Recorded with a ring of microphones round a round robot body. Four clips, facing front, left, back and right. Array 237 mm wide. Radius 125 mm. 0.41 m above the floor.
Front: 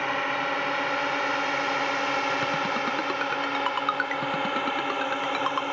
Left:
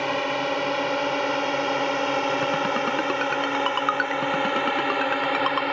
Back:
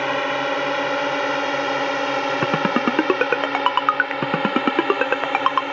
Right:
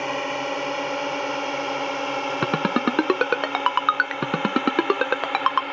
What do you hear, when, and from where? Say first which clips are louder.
0.0 s a drone: left 2 dB, back 6 dB; 170° left; by 5.7 s 130° left
2.4 s a ringtone: right 1 dB, back 7 dB; 145° right